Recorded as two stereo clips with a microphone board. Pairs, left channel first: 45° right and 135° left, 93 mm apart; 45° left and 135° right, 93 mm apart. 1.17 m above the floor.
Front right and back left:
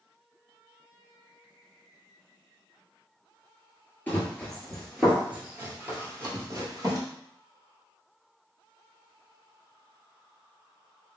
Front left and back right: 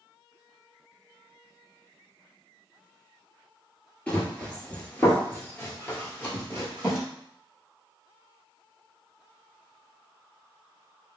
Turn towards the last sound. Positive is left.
turn(degrees=105)